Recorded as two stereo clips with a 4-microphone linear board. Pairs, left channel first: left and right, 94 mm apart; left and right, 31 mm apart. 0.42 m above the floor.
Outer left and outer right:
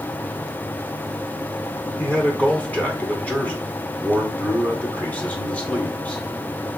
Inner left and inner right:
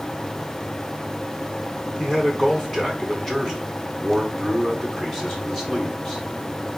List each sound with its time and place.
2.0 s a man speaking: 15° left (ahead or behind), 1.5 m